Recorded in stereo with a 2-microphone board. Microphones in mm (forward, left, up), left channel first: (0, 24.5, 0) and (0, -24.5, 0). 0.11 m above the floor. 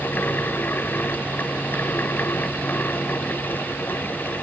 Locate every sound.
Only background noise.